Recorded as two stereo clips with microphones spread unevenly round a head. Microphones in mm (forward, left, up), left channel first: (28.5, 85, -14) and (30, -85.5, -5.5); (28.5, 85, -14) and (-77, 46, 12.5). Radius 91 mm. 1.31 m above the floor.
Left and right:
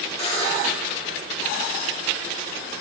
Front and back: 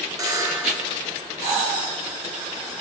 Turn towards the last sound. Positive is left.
turn(degrees=150)